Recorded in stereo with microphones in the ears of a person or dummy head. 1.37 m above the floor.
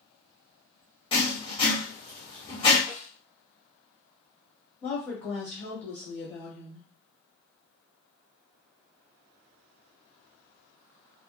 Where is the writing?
25° left (ahead or behind), 1.2 m.